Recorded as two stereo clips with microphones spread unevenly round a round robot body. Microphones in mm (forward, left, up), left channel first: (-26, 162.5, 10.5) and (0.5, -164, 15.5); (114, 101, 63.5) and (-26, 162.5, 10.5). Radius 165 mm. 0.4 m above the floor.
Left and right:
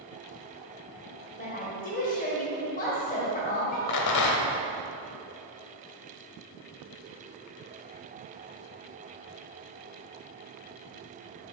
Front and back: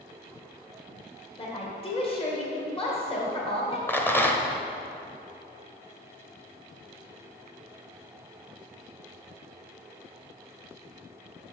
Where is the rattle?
60° left, 1.0 m.